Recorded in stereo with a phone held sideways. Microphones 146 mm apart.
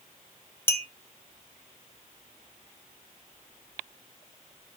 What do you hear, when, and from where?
0.7 s a clink: 15° left (ahead or behind), 0.9 m